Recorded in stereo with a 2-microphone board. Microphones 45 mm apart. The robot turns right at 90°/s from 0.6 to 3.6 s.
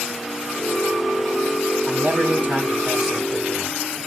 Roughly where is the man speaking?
Right.